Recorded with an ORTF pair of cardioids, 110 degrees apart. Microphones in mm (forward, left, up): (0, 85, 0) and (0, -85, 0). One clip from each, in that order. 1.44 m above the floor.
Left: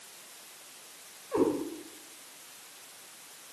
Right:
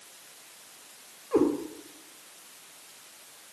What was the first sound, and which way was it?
A cat meowing, 70° right.